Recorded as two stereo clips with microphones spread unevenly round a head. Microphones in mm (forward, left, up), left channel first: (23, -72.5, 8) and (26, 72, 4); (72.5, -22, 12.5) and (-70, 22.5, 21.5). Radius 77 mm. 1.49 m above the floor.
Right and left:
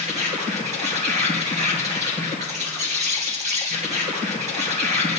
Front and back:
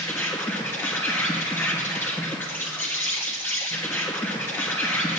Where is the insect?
60° left, 2.5 m.